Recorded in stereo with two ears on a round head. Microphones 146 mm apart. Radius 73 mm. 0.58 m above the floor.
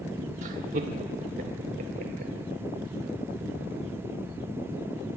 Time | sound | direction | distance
0.4 | laughter | 50° right (ahead or behind) | 1.2 m